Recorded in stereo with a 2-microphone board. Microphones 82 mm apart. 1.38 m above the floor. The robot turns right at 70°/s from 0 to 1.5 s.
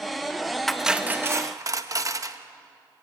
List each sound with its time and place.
0.7 s cutlery clinking: 175° left, 0.9 m; by 2.4 s 130° right, 0.9 m